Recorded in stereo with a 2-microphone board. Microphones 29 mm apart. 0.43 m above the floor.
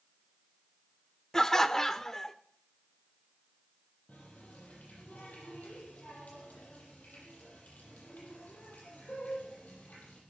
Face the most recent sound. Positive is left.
turn(degrees=65)  # may be behind; listen again after turning